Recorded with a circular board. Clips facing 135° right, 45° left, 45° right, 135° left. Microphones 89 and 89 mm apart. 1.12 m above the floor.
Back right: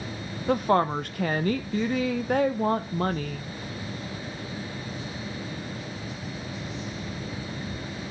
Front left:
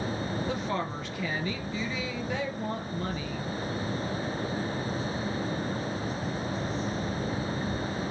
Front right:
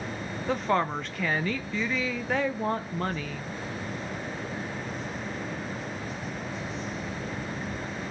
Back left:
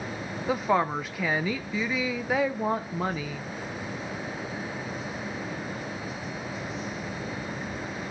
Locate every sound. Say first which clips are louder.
0.5 s a woman speaking: back right 9 dB, back left 1 dB; 140° right, 0.6 m